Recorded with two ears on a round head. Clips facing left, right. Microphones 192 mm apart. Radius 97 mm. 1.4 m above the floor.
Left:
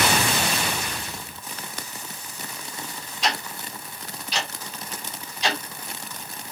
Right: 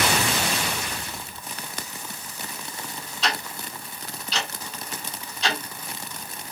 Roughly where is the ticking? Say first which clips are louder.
Left 1 dB; centre.